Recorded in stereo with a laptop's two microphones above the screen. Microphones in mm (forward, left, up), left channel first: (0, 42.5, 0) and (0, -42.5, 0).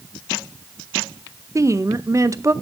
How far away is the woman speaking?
About 0.5 m.